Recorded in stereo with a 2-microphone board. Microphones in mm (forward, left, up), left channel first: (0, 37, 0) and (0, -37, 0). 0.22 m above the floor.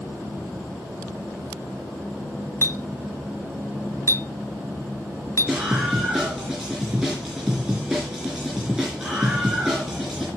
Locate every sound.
2.6 s a clink: 40° left (ahead or behind), 1.3 m
5.5 s a scream: 10° right (ahead or behind), 4 m